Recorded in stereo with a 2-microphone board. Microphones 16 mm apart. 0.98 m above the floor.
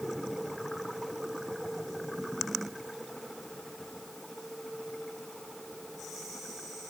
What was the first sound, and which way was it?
Only background noise.